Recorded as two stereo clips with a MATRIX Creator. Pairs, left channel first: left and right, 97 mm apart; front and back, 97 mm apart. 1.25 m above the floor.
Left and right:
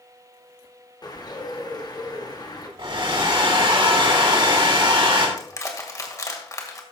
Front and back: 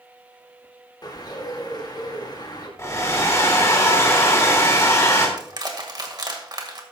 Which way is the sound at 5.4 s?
140° left.